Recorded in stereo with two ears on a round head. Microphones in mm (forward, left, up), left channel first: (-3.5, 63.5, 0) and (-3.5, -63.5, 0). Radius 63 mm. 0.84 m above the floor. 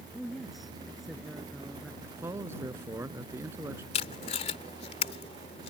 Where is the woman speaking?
Centre (ahead or behind).